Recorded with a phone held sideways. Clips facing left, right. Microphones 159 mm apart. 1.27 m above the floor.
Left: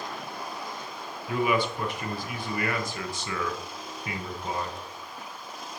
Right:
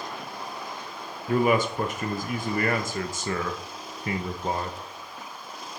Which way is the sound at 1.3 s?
45° right (ahead or behind).